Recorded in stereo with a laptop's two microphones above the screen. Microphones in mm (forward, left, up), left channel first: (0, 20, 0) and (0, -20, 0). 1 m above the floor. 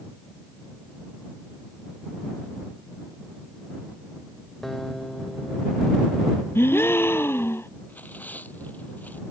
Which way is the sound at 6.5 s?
80° left.